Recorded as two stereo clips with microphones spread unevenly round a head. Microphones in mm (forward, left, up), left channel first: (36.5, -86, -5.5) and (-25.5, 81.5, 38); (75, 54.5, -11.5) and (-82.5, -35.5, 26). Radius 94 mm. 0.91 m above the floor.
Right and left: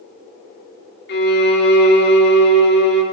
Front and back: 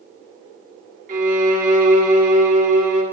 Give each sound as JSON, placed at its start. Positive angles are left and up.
{"t": 1.1, "sound": "a violin", "azimuth_deg": -100, "distance_m": 1.6}